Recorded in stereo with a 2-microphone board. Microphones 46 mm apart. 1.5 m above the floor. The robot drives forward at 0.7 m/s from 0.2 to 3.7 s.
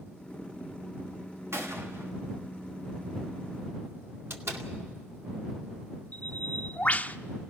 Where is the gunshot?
70° right (ahead or behind), 2 m; by 2.1 s 60° right (ahead or behind), 2 m.